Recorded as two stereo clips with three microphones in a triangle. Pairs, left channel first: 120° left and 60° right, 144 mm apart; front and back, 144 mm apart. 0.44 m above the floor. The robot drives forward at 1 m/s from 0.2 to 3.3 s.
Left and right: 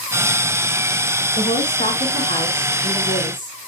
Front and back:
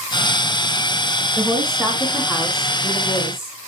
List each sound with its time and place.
1.4 s a woman speaking: 110° left, 4 m; by 3.6 s 130° left, 5 m